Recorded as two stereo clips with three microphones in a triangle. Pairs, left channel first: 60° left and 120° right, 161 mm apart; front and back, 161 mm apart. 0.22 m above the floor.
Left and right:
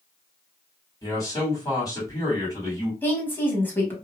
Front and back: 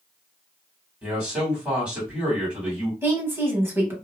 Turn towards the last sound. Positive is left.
turn(degrees=120)